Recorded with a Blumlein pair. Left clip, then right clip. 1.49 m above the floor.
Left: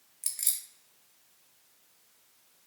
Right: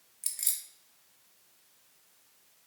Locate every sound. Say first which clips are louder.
0.2 s keys jangling: left 1 dB; 5° left, 1.0 m